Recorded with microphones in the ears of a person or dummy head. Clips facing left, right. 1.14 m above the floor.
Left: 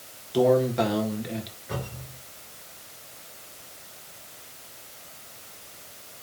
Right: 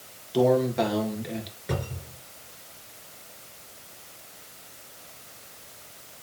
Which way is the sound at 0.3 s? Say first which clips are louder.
Left 1 dB; centre (ahead or behind).